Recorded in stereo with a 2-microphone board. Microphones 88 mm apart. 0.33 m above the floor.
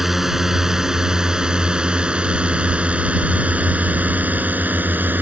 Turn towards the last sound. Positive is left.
turn(degrees=-20)  # may be behind; listen again after turning